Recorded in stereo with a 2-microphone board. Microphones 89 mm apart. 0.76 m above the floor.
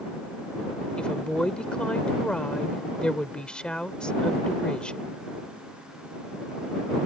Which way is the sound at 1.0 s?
10° left (ahead or behind).